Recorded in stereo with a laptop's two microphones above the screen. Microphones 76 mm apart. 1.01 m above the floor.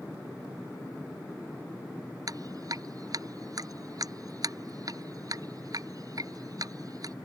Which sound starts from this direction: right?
Dripping, at 2.3 s.